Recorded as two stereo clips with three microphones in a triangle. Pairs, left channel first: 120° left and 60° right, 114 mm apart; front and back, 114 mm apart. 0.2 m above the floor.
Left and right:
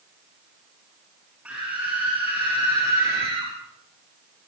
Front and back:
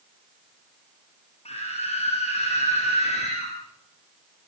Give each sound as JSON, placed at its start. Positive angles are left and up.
{"t": 1.4, "sound": "a scream", "azimuth_deg": 20, "distance_m": 4.5}